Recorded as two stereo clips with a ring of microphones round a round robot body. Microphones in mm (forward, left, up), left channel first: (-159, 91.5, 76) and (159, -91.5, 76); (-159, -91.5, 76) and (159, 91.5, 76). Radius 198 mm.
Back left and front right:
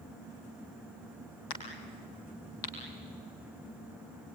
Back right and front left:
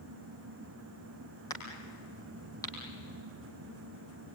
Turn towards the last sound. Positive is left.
turn(degrees=130)